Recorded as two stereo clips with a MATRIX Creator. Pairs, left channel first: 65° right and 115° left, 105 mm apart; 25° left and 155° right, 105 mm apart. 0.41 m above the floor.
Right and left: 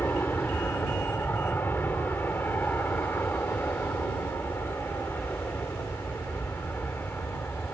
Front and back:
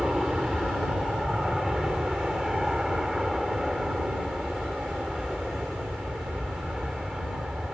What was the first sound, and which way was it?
An aircraft, 80° right.